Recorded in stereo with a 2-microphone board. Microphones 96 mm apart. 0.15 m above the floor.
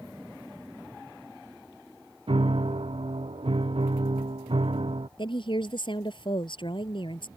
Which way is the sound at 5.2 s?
60° left (ahead or behind).